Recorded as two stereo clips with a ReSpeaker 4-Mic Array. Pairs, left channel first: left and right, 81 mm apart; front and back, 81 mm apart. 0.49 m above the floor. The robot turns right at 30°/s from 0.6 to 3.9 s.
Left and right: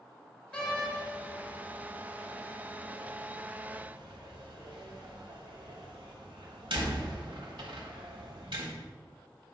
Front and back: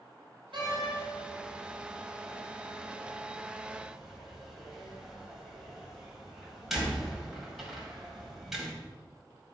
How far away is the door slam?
About 1.8 m.